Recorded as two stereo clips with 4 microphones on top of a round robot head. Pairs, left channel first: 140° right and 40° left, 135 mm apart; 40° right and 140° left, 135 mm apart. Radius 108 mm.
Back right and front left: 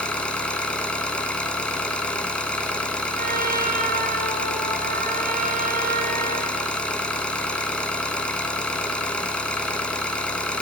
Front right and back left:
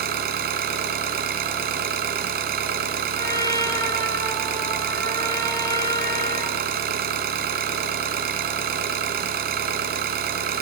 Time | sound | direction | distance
0.0 | an engine running | 140° left | 2.5 m
3.1 | a trumpet | 25° left | 6.5 m